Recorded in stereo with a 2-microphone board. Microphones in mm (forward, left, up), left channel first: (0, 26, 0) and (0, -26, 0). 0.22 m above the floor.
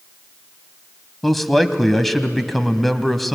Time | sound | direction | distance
1.2 | a man speaking | centre (ahead or behind) | 1.1 m